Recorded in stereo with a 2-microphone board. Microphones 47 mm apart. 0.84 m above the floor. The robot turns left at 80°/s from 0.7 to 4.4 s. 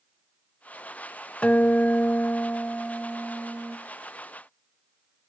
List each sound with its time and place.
1.4 s a guitar: 125° left, 0.6 m; by 3.8 s 65° right, 0.6 m